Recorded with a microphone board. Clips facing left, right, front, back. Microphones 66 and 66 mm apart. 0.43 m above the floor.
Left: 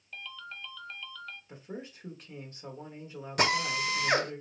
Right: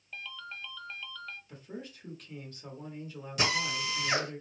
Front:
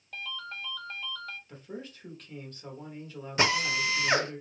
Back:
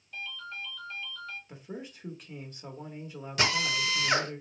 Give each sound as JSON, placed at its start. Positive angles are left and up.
{"t": 0.1, "sound": "a ringtone", "azimuth_deg": -5, "distance_m": 0.7}
{"t": 1.5, "sound": "a man speaking", "azimuth_deg": 125, "distance_m": 1.0}
{"t": 3.4, "sound": "a drill", "azimuth_deg": 60, "distance_m": 0.9}